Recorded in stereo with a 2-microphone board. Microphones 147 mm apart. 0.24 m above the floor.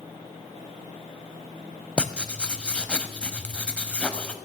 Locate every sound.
2.0 s writing: 10° left (ahead or behind), 0.6 m